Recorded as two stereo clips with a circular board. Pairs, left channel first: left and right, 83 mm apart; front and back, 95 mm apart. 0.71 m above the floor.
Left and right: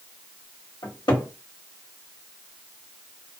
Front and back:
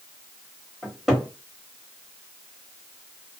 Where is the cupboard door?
90° left, 1.3 m.